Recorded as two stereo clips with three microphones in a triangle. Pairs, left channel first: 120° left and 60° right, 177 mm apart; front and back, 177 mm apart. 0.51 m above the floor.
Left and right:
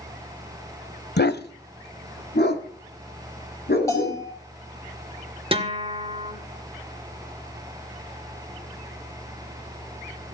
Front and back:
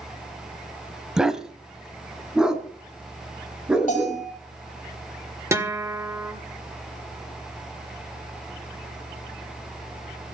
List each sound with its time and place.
1.2 s a dog barking: 95° left, 1.0 m
3.9 s a bell: 45° left, 6 m
5.5 s a guitar: 110° right, 1.9 m